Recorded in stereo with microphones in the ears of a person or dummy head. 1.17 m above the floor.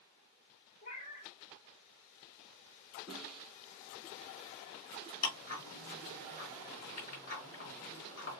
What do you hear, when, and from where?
0.8 s a cat meowing: 35° left (ahead or behind), 2.5 m
3.1 s a snare drum: 5° right (ahead or behind), 1.4 m
5.2 s ticking: 50° left (ahead or behind), 5 m